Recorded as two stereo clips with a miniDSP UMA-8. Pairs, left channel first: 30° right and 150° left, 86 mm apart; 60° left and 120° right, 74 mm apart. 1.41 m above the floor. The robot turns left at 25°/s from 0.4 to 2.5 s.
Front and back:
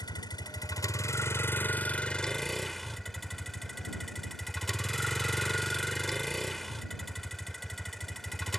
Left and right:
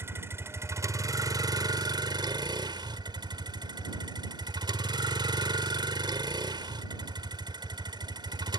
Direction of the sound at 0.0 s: 65° right.